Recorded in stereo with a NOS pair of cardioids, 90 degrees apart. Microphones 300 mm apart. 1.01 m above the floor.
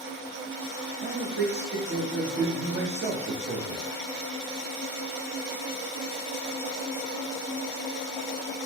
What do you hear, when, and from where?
1.0 s a man speaking: 35° right, 1.0 m